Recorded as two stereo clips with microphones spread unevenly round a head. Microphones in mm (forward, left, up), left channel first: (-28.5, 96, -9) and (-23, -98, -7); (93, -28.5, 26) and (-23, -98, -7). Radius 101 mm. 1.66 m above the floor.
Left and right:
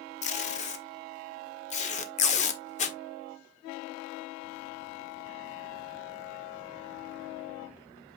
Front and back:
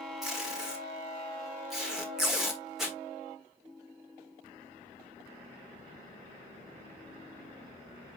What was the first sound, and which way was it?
Tape being pulled, 100° left.